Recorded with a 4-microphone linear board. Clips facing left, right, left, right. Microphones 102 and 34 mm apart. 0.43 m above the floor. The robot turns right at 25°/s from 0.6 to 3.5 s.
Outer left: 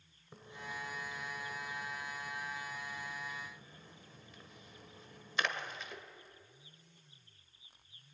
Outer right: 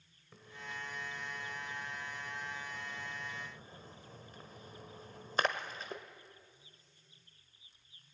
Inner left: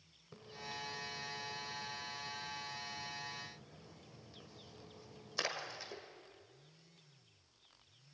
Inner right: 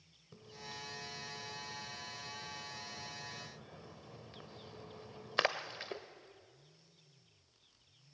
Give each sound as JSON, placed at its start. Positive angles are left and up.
{"t": 0.3, "sound": "a splash", "side_deg": 20, "distance_m": 1.3}